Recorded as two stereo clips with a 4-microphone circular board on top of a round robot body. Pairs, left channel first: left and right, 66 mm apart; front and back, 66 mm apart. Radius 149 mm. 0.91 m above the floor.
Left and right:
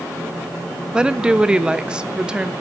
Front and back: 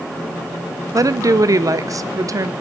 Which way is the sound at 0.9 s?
165° right.